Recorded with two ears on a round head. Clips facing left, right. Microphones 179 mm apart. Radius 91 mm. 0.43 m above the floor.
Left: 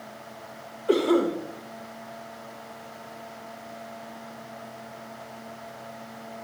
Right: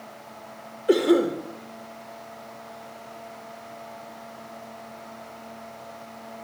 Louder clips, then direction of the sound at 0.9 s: Right 2 dB; 20° right (ahead or behind).